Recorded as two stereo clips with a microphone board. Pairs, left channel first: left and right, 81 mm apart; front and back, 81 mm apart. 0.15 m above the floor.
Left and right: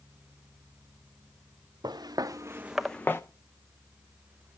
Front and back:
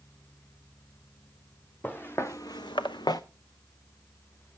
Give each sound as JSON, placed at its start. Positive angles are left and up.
{"t": 1.8, "sound": "footsteps", "azimuth_deg": -70, "distance_m": 1.5}